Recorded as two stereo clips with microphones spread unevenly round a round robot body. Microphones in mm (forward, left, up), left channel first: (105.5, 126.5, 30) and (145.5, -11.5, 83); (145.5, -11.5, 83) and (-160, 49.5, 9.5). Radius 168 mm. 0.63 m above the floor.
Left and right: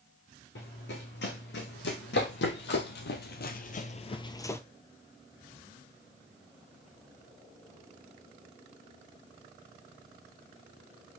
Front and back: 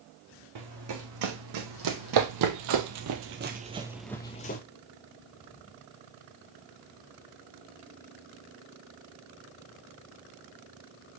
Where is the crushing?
I don't hear crushing.